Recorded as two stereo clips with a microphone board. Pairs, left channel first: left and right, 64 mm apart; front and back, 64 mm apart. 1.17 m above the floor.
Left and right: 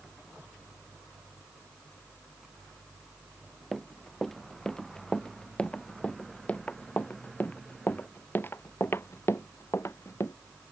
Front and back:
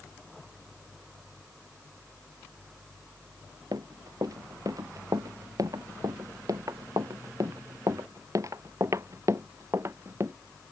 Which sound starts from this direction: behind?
Running footsteps, at 3.7 s.